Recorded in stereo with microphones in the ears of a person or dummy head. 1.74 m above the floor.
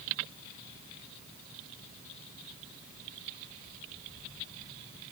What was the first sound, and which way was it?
Only background noise.